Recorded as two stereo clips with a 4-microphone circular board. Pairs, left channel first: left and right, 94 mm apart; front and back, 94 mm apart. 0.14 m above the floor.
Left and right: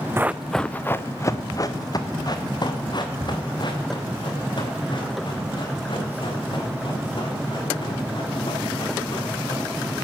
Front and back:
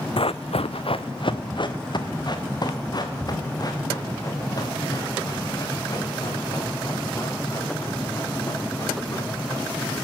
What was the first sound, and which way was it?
Running footsteps, 25° right.